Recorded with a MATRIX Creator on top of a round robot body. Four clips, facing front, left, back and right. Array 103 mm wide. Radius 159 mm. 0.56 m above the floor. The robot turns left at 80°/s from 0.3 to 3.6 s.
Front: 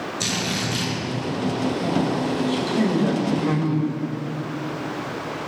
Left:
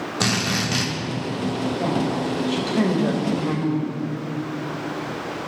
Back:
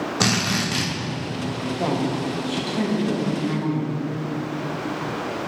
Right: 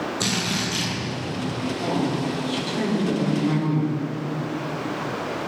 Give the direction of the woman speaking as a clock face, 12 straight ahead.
7 o'clock.